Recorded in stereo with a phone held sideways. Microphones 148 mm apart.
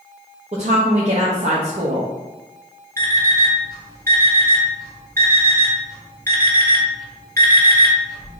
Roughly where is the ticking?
No ticking in this recording.